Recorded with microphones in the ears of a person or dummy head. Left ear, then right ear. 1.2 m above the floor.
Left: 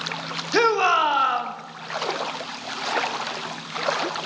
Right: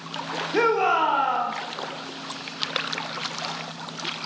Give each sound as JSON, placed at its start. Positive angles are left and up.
{"t": 0.5, "sound": "a shout", "side_deg": 50, "distance_m": 1.0}